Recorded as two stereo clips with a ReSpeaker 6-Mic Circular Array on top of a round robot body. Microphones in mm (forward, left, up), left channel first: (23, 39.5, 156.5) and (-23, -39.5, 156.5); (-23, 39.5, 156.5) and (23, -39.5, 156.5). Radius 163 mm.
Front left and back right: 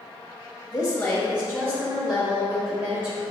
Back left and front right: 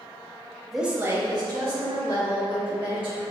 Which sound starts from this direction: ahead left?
A woman speaking, at 0.7 s.